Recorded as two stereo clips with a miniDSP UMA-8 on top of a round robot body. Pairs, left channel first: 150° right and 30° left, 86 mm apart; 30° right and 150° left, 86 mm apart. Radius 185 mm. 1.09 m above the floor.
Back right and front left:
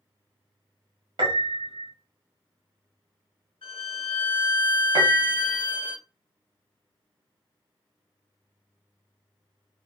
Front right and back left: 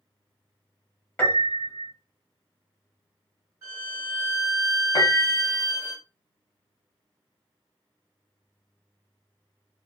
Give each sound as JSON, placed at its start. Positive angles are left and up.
{"t": 1.2, "sound": "a piano", "azimuth_deg": 40, "distance_m": 1.0}
{"t": 3.6, "sound": "a violin", "azimuth_deg": -155, "distance_m": 0.9}
{"t": 5.0, "sound": "a piano", "azimuth_deg": 10, "distance_m": 0.6}